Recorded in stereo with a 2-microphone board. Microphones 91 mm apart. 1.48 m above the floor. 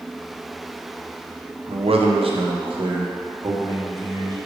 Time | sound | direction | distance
1.7 | a man speaking | 80° right | 1.0 m